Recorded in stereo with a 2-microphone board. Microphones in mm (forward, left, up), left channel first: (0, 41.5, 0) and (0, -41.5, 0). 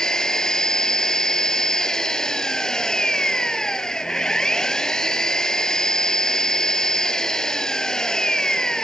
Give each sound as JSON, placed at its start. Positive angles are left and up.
{"t": 0.0, "sound": "an engine running", "side_deg": 10}